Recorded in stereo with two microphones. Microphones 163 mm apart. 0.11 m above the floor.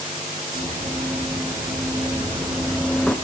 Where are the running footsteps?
25° right (ahead or behind), 5 m; by 3.1 s 10° left (ahead or behind), 1.4 m.